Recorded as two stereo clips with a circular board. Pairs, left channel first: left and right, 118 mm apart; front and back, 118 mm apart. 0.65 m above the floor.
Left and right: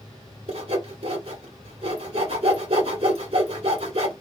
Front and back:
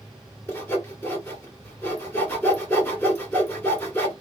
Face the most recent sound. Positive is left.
turn(degrees=-70)